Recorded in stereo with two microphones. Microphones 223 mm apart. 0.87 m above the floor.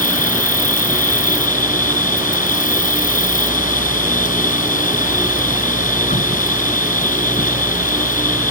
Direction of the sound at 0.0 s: 35° left (ahead or behind).